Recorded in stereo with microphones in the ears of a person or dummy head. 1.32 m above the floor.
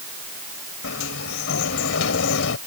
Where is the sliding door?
75° left (ahead or behind).